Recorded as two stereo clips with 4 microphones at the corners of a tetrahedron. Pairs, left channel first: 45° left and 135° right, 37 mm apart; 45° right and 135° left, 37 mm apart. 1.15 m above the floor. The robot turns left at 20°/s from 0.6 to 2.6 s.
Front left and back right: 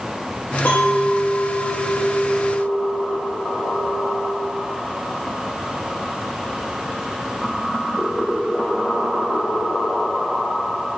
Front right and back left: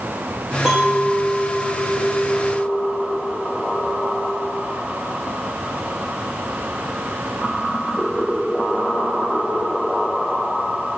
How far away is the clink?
About 0.7 m.